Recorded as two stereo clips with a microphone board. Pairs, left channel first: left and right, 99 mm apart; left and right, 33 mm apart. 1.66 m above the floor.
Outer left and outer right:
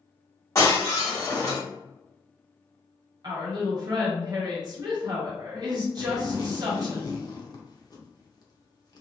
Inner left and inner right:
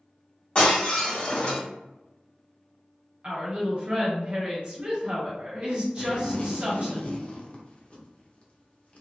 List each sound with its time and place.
0.6 s breaking glass: 35° left (ahead or behind), 1.8 m
3.2 s a woman speaking: 45° right (ahead or behind), 1.2 m
6.0 s a zipper: 40° left (ahead or behind), 0.7 m